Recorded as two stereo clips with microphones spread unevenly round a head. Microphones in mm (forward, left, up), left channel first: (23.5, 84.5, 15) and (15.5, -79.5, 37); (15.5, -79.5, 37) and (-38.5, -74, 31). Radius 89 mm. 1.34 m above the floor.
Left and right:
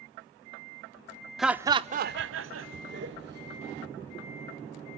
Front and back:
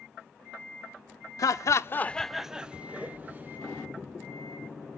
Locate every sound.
1.4 s laughter: 5° right, 0.7 m; by 3.6 s 130° right, 1.7 m